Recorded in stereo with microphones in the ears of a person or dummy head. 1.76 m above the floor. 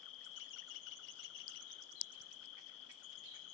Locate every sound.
0.0 s an insect: 65° left (ahead or behind), 0.9 m